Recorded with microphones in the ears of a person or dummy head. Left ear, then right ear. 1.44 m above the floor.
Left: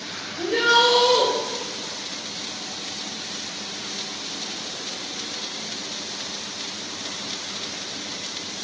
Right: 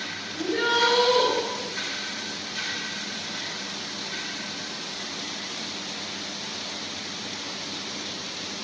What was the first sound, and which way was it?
A shout, 55° left (ahead or behind).